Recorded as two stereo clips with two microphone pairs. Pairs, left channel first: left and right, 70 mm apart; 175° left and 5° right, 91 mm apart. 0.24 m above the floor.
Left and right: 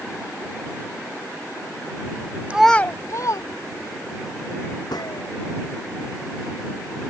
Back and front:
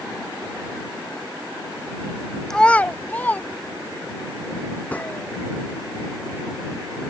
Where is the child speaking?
115° right; by 4.2 s 100° left.